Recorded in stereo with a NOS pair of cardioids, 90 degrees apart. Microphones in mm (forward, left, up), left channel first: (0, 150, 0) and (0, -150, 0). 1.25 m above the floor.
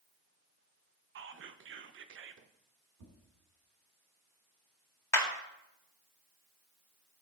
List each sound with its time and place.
1.1 s whispering: 40° right, 0.7 m
3.0 s tapping: 65° right, 3 m
5.1 s a clap: 10° left, 1.9 m